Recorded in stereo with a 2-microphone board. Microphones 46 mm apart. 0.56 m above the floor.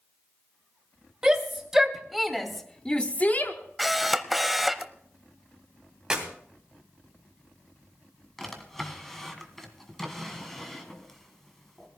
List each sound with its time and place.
1.2 s a shout: 15° right (ahead or behind), 2.5 m; by 3.5 s 45° left (ahead or behind), 1.1 m
3.8 s a camera shutter: 5° right (ahead or behind), 0.7 m
6.1 s a clap: 15° right (ahead or behind), 3 m
8.4 s a drawer: 5° left (ahead or behind), 1.8 m